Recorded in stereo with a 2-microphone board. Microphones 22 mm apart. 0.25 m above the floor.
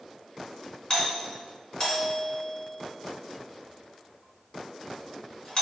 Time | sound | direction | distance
0.9 | a doorbell | 30° left (ahead or behind) | 3 m